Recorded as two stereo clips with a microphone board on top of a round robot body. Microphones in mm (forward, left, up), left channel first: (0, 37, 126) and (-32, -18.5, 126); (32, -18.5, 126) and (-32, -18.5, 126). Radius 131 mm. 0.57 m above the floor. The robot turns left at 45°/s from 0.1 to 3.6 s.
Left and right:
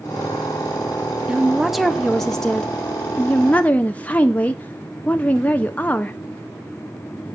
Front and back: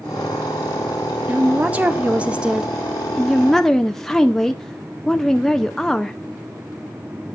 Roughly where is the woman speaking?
Behind.